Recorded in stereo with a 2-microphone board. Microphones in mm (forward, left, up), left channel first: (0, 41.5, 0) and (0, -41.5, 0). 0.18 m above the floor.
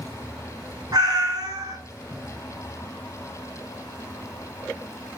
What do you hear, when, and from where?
0.9 s a cat meowing: 55° right (ahead or behind), 0.7 m